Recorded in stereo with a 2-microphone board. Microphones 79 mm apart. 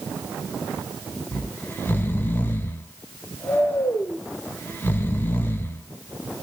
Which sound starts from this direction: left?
Snoring, at 1.3 s.